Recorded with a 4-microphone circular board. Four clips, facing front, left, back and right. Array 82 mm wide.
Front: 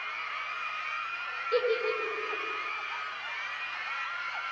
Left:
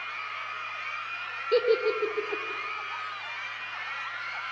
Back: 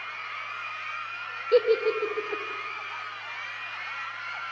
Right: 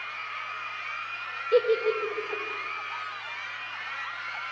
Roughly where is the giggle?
Behind left.